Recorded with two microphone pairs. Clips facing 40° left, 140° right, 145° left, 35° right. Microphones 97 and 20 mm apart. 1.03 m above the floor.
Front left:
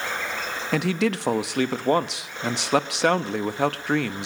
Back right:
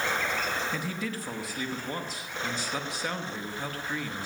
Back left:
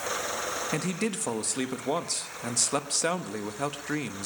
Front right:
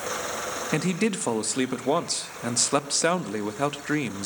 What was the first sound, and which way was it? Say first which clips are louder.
A man speaking: front left 10 dB, front right 8 dB; 35° left.